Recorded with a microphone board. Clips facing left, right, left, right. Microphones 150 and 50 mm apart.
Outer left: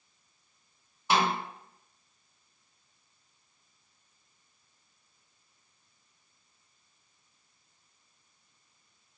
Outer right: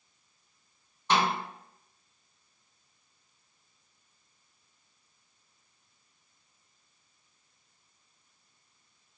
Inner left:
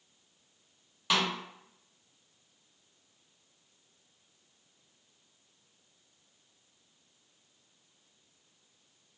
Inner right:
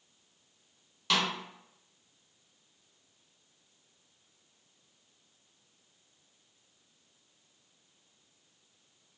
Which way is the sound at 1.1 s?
10° left (ahead or behind).